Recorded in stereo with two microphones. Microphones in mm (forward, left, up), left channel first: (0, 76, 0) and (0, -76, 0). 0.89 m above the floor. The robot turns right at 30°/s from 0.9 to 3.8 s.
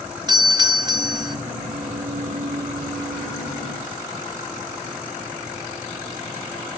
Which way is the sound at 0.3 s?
30° right (ahead or behind).